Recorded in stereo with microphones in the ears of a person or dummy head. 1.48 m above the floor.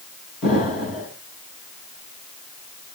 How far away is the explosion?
About 3.5 m.